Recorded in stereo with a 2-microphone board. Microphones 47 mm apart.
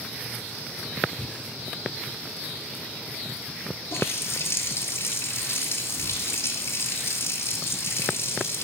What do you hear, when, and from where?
1.2 s breathing: 25° left (ahead or behind), 1.7 m
3.9 s a running tap: 65° left (ahead or behind), 2.5 m